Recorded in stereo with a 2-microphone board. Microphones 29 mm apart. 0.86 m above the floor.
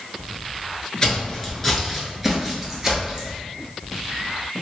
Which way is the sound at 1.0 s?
20° left (ahead or behind).